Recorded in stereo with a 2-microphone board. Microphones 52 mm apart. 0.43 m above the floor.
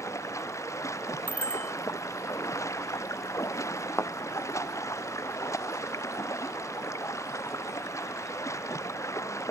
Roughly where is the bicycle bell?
Left.